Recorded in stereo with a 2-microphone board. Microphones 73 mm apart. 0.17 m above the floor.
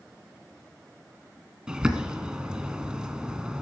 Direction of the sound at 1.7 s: 10° right (ahead or behind).